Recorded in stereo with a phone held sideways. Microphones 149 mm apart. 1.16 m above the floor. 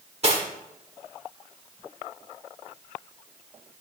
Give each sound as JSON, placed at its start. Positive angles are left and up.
{"t": 0.2, "sound": "cutlery clinking", "side_deg": -45, "distance_m": 1.9}